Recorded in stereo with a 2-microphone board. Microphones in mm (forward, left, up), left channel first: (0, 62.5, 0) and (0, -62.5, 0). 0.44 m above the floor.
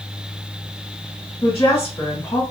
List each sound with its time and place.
1.4 s a woman speaking: 35° left (ahead or behind), 1.7 m